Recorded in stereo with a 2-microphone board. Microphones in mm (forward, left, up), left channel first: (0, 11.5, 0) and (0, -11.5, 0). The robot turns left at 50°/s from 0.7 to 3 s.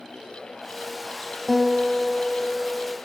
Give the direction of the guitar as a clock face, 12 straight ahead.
6 o'clock.